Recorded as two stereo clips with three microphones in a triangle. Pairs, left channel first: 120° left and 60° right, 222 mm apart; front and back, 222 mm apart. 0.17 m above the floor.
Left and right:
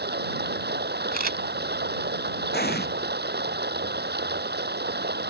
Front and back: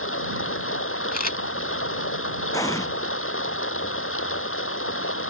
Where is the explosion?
75° left.